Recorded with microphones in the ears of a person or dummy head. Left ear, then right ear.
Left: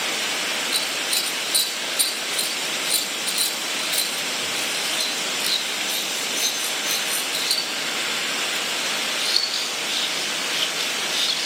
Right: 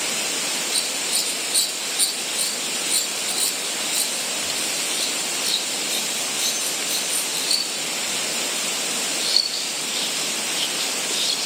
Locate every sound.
0.7 s scissors: 35° left (ahead or behind), 3.5 m